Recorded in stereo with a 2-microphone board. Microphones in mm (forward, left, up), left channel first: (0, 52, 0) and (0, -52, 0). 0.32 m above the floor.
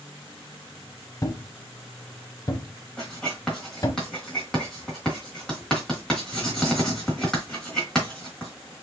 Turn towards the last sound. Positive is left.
turn(degrees=5)  # may be behind; listen again after turning